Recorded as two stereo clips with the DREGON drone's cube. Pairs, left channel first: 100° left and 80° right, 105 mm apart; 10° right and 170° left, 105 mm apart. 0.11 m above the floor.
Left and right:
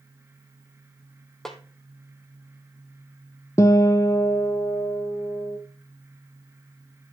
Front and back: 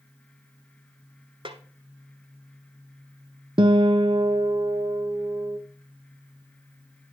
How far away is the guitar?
About 0.7 m.